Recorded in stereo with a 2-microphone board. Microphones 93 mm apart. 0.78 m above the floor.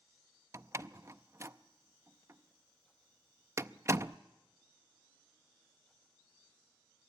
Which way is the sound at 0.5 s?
30° right (ahead or behind).